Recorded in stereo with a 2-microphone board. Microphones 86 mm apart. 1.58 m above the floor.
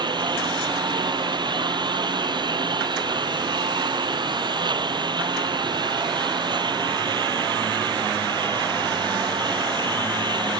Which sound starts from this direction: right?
A lawn mower, at 0.0 s.